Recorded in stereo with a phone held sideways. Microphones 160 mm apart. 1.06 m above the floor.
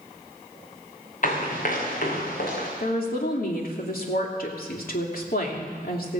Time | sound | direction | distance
1.2 | running footsteps | 55° left (ahead or behind) | 5.5 m
2.8 | a woman speaking | 65° left (ahead or behind) | 2.5 m